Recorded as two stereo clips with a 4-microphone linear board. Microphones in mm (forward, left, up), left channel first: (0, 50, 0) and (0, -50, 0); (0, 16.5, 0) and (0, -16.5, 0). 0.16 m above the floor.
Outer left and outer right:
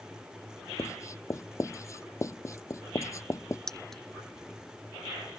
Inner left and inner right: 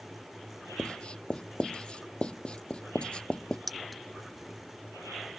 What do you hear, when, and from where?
0.8 s writing: 30° left (ahead or behind)
3.7 s keys jangling: 5° left (ahead or behind)